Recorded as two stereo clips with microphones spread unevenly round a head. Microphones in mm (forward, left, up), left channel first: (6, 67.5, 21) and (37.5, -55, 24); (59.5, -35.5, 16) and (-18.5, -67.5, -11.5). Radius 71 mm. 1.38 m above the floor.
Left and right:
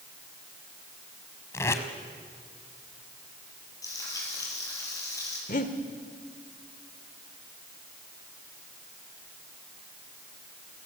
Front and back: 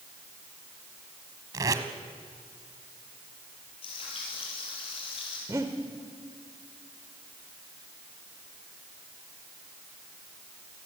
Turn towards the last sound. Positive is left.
turn(degrees=125)